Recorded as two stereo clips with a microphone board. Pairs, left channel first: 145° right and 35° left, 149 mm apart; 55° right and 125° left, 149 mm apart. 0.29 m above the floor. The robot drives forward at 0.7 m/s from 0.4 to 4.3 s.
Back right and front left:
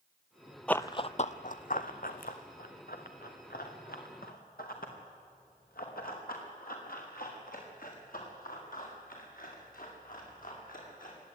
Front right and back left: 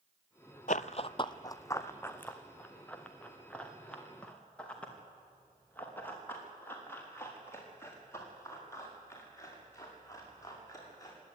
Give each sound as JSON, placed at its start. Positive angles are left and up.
{"t": 0.7, "sound": "running footsteps", "azimuth_deg": -65, "distance_m": 0.5}